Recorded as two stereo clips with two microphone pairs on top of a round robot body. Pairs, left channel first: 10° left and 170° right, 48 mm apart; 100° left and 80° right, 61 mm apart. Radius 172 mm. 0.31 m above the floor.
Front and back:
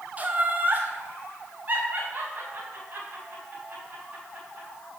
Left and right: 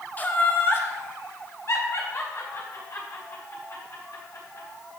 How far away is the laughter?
About 1.7 m.